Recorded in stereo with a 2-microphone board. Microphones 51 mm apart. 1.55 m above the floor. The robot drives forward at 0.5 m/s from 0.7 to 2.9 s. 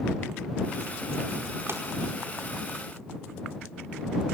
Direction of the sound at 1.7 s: 50° right (ahead or behind).